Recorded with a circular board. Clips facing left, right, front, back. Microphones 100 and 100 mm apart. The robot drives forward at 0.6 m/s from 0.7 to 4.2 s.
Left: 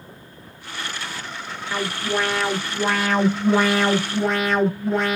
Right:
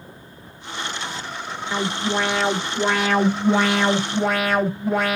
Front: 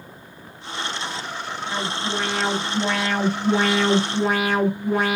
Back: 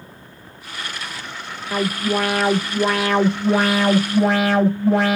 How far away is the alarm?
About 0.7 m.